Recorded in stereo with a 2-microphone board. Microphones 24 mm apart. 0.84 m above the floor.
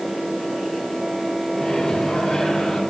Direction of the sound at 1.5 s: 20° left (ahead or behind).